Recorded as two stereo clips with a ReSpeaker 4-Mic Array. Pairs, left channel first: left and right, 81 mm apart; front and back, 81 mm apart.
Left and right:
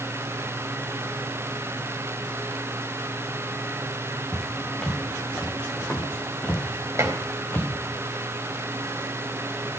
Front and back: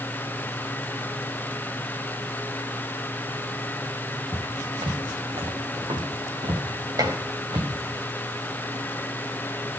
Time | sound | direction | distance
4.3 | footsteps | straight behind | 5 m
7.0 | dishes clattering | 145° right | 3.5 m